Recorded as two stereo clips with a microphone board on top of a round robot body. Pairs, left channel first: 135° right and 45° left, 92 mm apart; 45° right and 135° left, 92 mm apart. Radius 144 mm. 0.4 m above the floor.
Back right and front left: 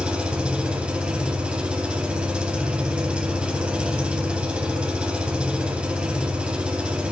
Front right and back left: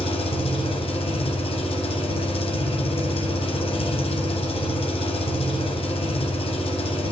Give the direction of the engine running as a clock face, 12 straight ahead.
1 o'clock.